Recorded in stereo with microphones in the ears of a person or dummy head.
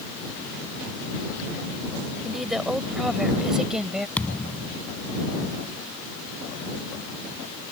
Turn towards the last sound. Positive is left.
turn(degrees=5)  # may be behind; listen again after turning